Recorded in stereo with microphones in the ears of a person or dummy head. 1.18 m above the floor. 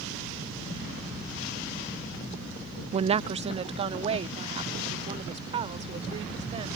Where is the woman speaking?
30° right (ahead or behind).